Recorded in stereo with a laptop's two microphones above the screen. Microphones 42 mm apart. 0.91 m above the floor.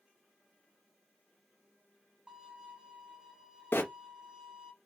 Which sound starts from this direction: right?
A violin, at 2.3 s.